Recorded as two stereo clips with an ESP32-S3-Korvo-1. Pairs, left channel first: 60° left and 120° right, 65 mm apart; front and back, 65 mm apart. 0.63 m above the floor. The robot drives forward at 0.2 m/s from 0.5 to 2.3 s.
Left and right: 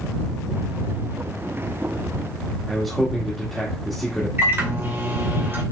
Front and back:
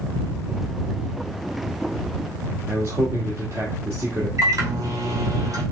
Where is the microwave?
170° right, 2.5 m.